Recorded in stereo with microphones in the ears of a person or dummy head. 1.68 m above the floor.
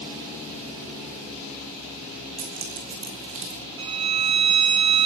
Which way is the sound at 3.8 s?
35° right (ahead or behind).